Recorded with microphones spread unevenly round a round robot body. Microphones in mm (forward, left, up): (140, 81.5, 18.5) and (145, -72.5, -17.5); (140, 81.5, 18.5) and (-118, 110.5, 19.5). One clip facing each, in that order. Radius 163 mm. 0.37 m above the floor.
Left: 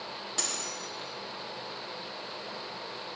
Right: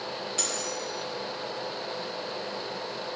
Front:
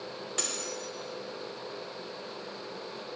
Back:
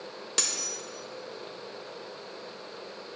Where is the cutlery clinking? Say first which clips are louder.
Right 6 dB, front 1 dB; 160° left, 1.0 m.